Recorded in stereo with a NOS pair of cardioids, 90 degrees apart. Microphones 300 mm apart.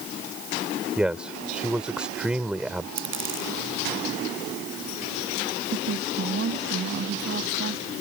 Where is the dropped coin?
40° right.